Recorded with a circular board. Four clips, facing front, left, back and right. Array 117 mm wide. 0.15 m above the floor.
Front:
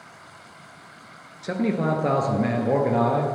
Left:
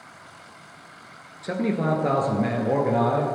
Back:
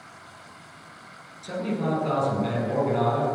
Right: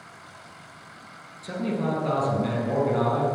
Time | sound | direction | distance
1.4 | a man speaking | 35° left | 2.5 m